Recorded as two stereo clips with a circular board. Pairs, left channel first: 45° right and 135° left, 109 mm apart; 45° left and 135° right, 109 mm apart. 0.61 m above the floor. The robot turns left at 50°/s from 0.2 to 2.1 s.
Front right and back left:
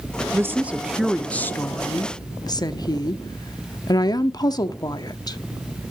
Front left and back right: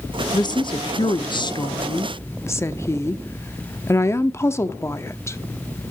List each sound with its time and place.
0.3 s a woman speaking: 80° left, 0.9 m; by 5.4 s 10° right, 0.9 m